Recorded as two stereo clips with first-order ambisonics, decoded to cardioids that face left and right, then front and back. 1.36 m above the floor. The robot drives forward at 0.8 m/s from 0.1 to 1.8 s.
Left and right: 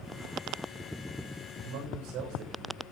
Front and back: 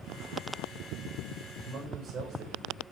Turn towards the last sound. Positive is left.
turn(degrees=-115)